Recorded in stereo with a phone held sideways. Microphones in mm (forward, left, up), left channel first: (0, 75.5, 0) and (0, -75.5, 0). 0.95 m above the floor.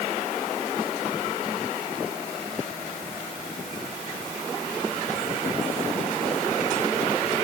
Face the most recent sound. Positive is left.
No sound to turn to.